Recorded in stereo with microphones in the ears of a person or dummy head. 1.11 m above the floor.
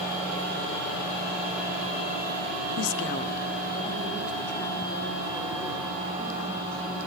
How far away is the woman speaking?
About 0.6 m.